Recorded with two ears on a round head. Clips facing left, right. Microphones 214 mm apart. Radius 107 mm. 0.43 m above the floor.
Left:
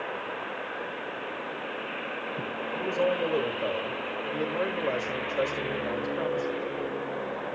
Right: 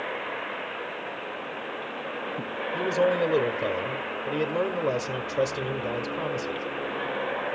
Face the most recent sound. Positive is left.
turn(degrees=-40)  # may be behind; listen again after turning